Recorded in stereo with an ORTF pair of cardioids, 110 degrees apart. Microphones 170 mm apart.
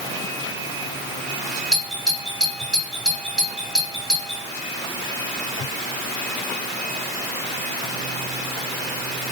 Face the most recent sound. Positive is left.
turn(degrees=-5)